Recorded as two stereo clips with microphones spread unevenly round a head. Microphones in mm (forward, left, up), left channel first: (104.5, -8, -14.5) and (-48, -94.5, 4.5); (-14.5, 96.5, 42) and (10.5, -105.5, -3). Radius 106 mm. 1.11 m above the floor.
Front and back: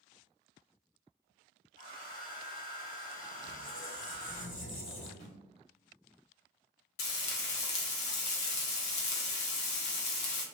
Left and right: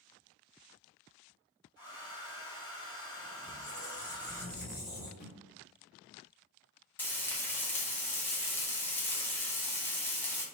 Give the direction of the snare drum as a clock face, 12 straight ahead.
10 o'clock.